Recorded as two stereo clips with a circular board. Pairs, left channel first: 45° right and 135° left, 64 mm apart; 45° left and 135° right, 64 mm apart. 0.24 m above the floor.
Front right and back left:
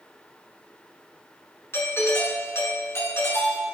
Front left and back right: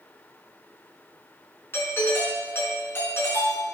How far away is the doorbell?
About 4.5 m.